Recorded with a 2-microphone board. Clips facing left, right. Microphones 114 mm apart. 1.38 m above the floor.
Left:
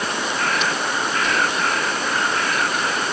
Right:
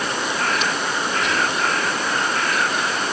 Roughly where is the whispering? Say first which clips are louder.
Even; right.